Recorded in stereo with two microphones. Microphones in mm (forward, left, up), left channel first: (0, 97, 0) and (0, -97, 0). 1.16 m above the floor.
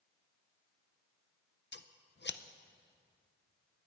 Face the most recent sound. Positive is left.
turn(degrees=65)  # may be behind; listen again after turning